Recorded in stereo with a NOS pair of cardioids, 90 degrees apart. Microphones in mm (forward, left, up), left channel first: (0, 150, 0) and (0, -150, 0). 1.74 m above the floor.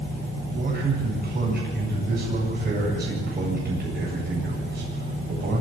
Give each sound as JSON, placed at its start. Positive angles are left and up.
{"t": 0.5, "sound": "a man speaking", "azimuth_deg": -35, "distance_m": 8.5}